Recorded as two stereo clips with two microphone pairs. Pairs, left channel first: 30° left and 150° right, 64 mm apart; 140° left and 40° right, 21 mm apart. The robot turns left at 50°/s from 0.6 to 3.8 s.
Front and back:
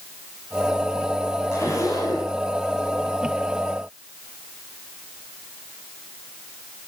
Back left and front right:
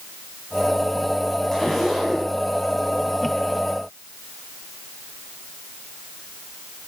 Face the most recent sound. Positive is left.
turn(degrees=-35)